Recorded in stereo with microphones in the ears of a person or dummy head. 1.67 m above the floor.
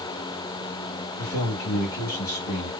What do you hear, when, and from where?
1.2 s a man speaking: 50° left (ahead or behind), 2.5 m